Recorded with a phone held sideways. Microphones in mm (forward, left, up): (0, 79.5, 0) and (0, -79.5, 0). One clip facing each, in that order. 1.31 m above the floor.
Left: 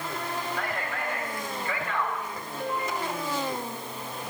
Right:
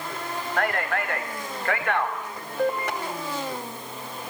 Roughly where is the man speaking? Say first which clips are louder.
Right 6 dB; right.